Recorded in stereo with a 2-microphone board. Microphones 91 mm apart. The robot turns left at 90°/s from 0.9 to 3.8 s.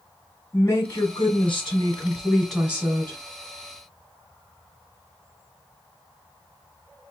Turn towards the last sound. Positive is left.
turn(degrees=-115)